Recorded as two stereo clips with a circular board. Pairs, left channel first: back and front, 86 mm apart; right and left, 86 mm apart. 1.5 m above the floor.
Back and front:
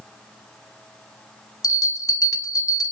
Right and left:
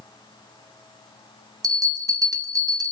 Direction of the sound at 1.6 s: 135° left.